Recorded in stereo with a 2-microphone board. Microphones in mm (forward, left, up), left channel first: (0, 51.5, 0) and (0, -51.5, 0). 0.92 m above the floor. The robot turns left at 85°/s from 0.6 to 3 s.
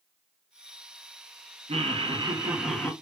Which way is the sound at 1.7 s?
90° right.